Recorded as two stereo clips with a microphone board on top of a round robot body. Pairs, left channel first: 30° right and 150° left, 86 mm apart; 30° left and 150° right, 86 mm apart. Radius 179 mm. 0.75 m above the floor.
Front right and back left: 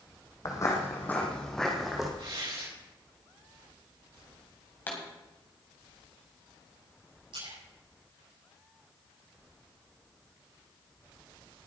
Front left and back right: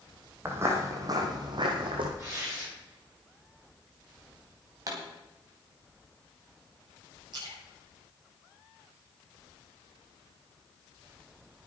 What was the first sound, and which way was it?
Footsteps, 85° right.